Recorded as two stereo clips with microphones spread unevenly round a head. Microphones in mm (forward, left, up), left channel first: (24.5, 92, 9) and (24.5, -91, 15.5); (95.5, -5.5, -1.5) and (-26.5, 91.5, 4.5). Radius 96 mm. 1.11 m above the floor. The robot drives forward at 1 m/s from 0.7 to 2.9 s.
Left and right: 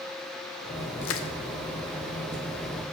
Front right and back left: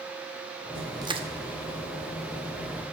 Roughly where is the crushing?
Left.